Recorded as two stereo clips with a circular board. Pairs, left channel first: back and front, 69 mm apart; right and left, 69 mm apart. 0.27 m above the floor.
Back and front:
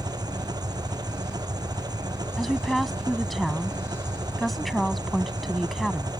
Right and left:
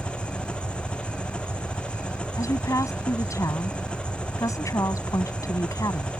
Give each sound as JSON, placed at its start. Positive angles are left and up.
{"t": 0.0, "sound": "an engine running", "azimuth_deg": -15}
{"t": 2.4, "sound": "a woman speaking", "azimuth_deg": -90}